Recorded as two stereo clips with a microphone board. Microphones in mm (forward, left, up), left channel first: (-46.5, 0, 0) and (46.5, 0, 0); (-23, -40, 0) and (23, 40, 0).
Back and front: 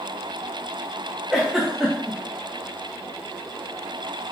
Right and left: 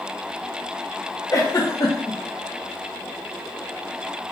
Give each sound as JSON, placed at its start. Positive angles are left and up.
{"t": 1.3, "sound": "a giggle", "azimuth_deg": -85, "distance_m": 1.3}